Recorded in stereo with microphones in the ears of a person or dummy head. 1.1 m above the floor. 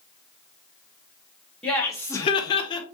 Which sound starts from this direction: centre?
Laughter, at 1.6 s.